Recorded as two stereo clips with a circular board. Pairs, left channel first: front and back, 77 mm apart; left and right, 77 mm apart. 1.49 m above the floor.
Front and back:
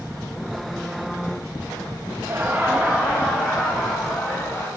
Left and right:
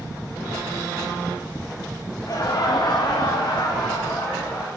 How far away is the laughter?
About 0.6 m.